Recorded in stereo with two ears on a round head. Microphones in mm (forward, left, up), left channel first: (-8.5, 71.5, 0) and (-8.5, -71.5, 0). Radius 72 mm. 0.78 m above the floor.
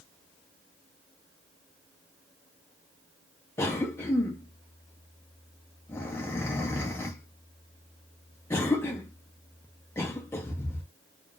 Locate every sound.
3.6 s a cough: 15° left (ahead or behind), 0.6 m